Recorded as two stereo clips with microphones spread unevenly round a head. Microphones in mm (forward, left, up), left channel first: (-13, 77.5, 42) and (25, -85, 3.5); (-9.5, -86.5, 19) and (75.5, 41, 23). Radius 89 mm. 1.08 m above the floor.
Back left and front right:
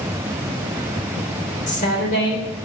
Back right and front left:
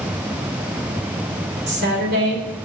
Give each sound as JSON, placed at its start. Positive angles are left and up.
{"t": 1.7, "sound": "a woman speaking", "azimuth_deg": 55, "distance_m": 3.5}